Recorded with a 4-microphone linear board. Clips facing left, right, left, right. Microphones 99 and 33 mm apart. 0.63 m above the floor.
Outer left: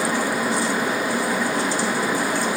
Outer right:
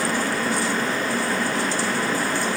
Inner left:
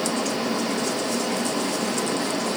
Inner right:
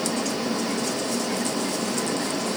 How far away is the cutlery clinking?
I don't hear cutlery clinking.